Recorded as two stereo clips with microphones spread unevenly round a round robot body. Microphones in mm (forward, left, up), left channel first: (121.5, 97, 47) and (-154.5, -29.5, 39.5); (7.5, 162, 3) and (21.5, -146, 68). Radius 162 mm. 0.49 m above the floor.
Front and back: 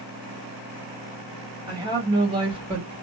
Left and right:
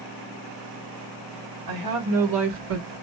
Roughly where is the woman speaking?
Right.